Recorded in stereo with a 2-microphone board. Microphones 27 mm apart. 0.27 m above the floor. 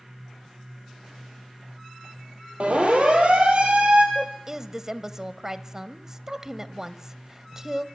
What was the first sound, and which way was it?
A siren, 55° right (ahead or behind).